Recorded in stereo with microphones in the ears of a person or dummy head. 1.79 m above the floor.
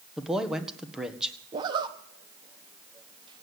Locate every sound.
0.2 s a man speaking: 5° right (ahead or behind), 1.6 m
1.5 s a zipper: 25° right (ahead or behind), 1.2 m